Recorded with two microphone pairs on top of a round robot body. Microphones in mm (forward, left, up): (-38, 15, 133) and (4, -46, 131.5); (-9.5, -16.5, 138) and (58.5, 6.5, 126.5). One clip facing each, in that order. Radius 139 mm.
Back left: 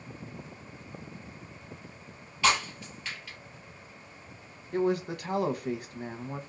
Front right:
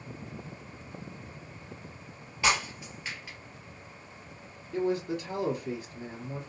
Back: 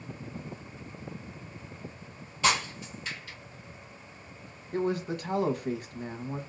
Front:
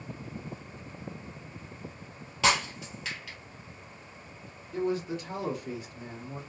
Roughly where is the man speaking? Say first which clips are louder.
Back left 1 dB, back 1 dB; behind left.